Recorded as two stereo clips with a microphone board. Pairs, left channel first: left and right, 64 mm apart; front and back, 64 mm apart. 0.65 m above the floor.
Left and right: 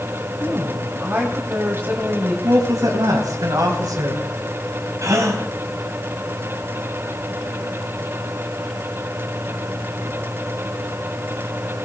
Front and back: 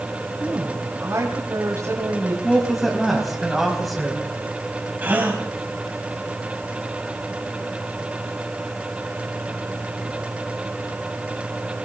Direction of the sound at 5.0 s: 120° right.